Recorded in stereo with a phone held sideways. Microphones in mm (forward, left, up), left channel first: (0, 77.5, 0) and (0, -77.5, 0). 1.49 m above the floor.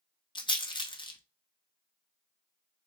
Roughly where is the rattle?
Left.